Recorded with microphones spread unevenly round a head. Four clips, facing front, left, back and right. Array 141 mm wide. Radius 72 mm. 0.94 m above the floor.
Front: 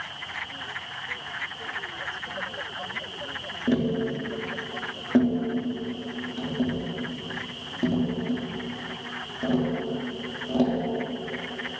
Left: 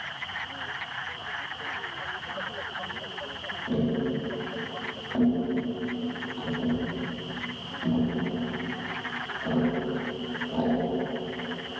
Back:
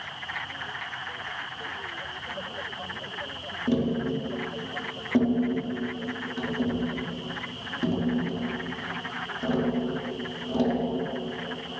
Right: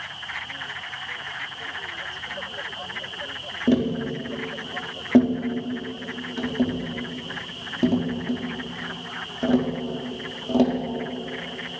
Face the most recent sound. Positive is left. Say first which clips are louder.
# right 5 dB, front 1 dB
turn(degrees=-90)